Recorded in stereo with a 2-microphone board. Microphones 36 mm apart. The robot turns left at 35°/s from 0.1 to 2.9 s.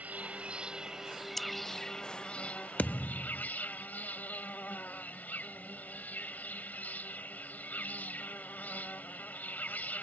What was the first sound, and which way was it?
An insect, 135° right.